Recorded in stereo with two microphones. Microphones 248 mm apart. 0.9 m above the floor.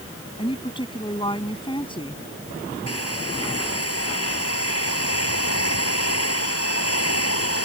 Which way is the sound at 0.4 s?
20° left (ahead or behind).